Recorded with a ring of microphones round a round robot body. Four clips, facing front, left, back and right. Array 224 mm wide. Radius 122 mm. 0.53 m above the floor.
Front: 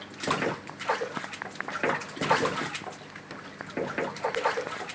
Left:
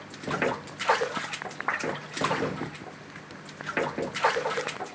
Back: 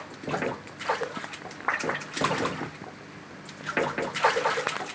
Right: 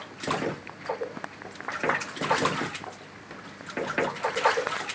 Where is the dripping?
No dripping in this recording.